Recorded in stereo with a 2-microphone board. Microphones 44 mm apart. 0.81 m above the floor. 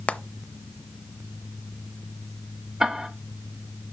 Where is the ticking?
15° right (ahead or behind), 1.1 m.